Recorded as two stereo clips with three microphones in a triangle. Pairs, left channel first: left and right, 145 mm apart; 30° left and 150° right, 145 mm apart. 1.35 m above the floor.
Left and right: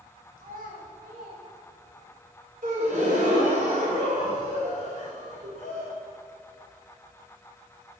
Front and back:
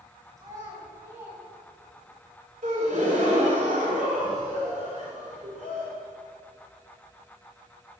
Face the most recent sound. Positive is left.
turn(degrees=-120)